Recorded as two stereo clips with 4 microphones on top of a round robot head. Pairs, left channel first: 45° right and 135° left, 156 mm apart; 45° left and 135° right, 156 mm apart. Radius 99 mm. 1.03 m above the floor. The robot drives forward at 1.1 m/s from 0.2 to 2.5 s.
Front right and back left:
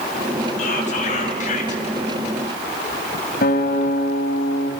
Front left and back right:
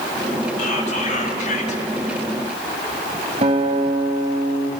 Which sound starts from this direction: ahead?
Whispering, at 0.6 s.